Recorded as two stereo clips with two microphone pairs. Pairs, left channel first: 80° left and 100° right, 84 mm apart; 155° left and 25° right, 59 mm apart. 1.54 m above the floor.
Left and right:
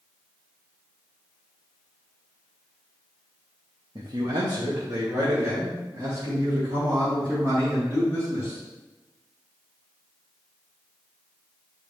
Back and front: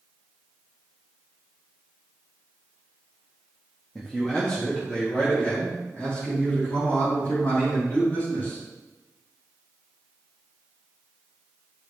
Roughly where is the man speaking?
Behind right.